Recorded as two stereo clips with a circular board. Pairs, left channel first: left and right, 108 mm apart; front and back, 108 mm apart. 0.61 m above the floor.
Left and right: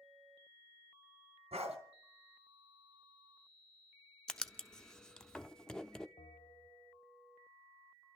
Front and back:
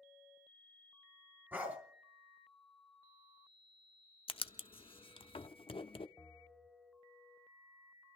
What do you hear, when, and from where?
1.5 s a dog barking: 110° right, 2.5 m
4.3 s writing: 10° left, 0.7 m
6.2 s a bell: 75° left, 1.1 m